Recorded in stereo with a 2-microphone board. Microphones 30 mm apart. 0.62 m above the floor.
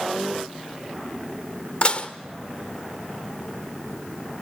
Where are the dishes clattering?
45° left (ahead or behind), 1.2 m.